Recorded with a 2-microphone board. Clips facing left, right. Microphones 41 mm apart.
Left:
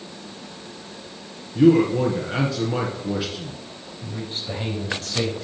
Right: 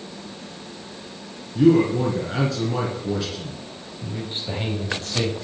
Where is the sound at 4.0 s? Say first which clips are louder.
Right 1 dB; 25° right (ahead or behind), 5.5 m.